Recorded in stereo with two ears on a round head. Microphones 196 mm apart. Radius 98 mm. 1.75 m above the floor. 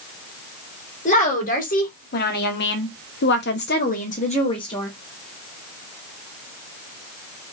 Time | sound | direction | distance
1.1 | a woman speaking | 35° left (ahead or behind) | 1.7 m